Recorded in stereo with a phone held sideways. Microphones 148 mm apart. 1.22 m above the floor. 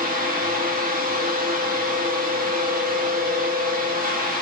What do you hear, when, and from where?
0.0 s a fan: 75° right (ahead or behind), 1.1 m